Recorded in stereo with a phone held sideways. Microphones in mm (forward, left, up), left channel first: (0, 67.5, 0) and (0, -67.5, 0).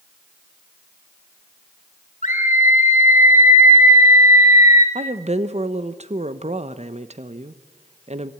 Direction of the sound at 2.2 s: 65° left (ahead or behind).